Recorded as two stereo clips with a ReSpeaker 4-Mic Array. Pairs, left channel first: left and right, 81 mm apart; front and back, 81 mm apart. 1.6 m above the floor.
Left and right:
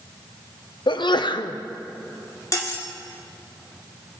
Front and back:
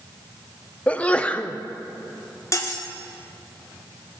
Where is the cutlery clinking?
50° left, 1.6 m.